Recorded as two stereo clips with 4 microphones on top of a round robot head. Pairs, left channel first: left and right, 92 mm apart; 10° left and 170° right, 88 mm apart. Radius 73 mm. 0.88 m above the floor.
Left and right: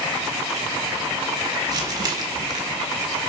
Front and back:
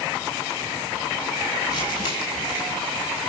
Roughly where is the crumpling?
Ahead right.